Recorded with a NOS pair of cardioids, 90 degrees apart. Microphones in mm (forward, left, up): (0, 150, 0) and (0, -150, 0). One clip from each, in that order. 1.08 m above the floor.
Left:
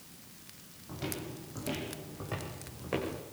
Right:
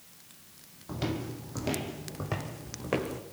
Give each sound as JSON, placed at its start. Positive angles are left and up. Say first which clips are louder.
{"t": 0.9, "sound": "footsteps", "louder": "right 5 dB", "azimuth_deg": -50, "distance_m": 3.5}